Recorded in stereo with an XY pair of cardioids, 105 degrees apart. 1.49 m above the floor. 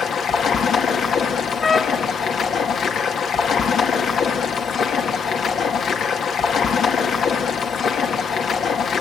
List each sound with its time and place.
0.0 s running water: 55° left, 2.5 m
1.6 s a trumpet: 30° left, 0.9 m